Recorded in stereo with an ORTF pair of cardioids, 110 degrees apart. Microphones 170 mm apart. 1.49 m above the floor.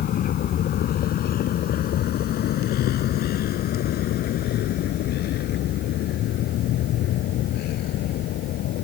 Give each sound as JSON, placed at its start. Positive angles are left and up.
{"t": 0.0, "sound": "a vehicle", "azimuth_deg": 60}